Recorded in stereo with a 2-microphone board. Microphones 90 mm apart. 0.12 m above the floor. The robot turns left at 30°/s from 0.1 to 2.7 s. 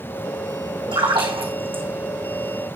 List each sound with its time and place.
0.9 s a splash: 70° right (ahead or behind), 3 m; by 1.8 s 75° right (ahead or behind), 3 m